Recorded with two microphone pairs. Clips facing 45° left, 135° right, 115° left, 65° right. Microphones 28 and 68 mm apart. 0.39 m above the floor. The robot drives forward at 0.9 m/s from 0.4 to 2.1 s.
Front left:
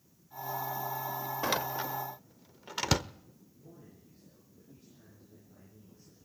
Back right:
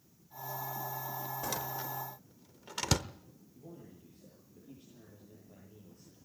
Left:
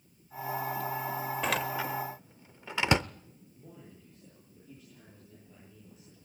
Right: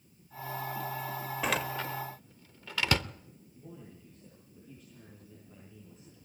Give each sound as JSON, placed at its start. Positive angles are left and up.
{"t": 1.4, "sound": "a door slam", "azimuth_deg": 20, "distance_m": 0.8}
{"t": 3.5, "sound": "a man speaking", "azimuth_deg": -160, "distance_m": 10.0}